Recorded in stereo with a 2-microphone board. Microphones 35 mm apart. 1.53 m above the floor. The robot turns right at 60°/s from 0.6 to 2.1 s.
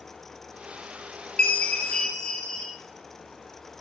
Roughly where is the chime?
Left.